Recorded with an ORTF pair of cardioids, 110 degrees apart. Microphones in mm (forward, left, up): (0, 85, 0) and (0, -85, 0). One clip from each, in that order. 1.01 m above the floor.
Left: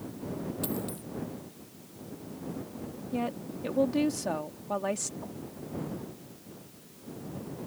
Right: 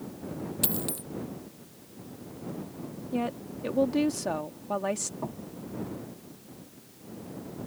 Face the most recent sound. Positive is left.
turn(degrees=-55)